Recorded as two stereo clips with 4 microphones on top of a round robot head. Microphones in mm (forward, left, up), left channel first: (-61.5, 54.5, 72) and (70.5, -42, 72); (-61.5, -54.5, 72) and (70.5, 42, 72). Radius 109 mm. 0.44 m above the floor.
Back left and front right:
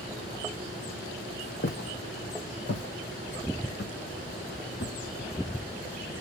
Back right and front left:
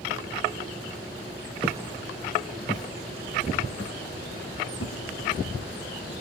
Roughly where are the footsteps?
Left.